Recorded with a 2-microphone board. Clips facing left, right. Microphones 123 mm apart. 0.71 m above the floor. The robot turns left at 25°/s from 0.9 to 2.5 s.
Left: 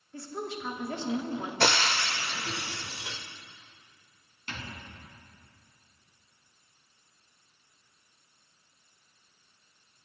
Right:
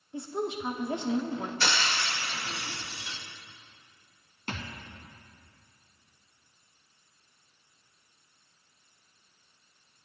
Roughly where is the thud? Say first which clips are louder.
Right 3 dB; right.